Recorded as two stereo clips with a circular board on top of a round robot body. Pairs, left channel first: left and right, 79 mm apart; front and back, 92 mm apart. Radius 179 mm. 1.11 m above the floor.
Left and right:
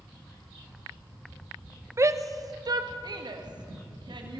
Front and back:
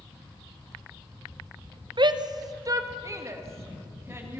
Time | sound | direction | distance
2.0 | a shout | 145° right | 1.2 m